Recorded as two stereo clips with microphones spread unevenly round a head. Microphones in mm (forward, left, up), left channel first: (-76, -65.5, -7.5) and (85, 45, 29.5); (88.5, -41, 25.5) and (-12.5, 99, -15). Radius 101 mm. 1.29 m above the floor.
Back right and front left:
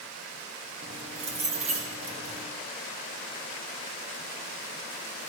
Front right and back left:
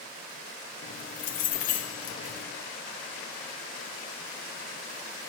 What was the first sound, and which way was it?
Keys jangling, 20° right.